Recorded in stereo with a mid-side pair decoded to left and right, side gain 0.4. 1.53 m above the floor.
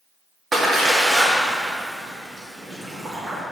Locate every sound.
0.5 s a splash: 35° right, 2.5 m